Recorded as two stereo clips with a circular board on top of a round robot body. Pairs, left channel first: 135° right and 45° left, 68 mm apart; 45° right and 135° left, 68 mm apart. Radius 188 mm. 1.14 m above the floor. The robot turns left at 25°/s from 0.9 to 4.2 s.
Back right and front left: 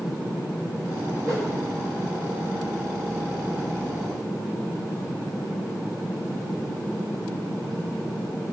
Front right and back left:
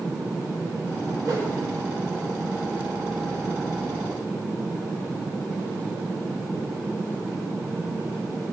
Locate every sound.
1.2 s a whoosh: 95° left, 3.5 m; by 1.5 s 90° left, 3.5 m